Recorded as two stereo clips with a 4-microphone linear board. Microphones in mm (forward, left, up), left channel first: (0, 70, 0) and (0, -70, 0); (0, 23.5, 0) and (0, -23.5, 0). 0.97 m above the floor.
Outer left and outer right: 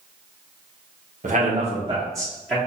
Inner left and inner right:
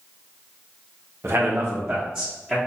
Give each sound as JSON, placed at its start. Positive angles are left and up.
{"t": 1.2, "sound": "a man speaking", "side_deg": -60, "distance_m": 0.8}